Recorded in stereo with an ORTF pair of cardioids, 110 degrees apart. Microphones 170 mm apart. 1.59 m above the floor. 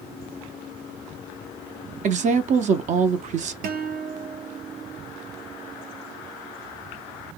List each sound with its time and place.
2.0 s a woman speaking: 50° right, 0.7 m
3.6 s a guitar: 65° right, 0.8 m